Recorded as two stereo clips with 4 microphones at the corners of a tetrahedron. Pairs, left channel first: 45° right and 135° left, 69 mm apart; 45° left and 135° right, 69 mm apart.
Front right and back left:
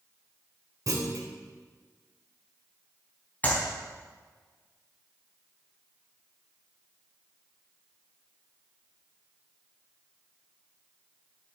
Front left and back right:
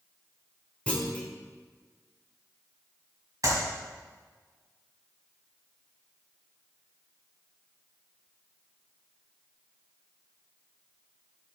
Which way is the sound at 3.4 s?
110° right.